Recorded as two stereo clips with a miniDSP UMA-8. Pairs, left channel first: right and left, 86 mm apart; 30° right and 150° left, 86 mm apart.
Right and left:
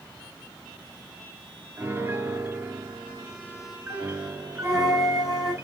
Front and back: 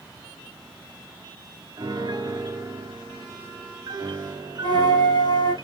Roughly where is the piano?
Behind left.